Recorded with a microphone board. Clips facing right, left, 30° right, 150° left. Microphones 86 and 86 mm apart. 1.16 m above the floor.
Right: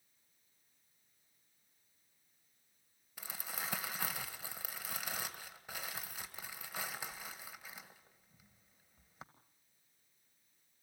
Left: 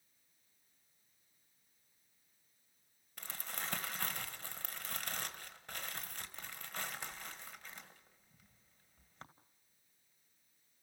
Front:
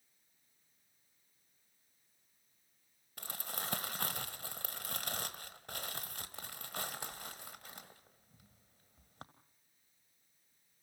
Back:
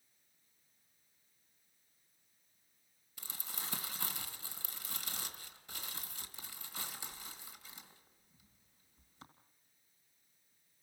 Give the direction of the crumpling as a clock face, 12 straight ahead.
12 o'clock.